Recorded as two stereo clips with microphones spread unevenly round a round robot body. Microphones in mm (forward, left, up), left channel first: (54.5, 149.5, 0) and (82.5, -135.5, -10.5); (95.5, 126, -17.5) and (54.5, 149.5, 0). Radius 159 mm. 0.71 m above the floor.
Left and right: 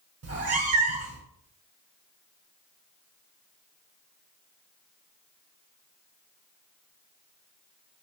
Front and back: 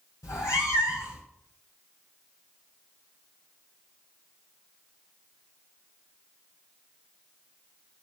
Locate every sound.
0.2 s a cat meowing: 45° right, 1.5 m